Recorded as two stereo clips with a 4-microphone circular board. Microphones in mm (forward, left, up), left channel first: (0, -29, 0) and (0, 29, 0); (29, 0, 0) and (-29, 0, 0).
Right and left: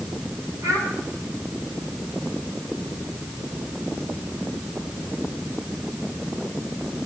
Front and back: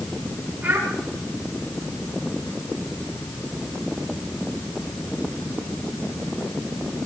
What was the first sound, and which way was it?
A child speaking, 115° left.